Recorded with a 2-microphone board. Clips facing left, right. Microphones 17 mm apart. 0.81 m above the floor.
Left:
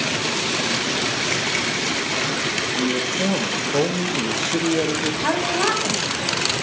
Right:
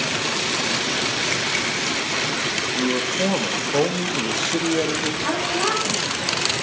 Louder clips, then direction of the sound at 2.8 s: Even; 40° right (ahead or behind).